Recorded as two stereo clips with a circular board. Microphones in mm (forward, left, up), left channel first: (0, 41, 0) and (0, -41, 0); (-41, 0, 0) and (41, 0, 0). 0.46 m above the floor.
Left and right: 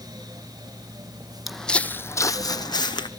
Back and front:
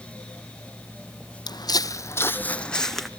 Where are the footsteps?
175° right, 0.8 m; by 3.1 s 95° left, 1.2 m.